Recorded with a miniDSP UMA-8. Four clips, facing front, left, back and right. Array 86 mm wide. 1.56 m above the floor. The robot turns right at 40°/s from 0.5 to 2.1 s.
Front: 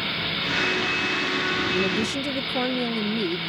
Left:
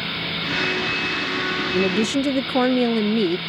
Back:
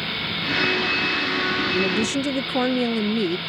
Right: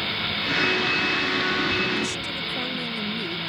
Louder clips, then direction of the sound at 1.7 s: Left 7 dB, back 3 dB; 90° left.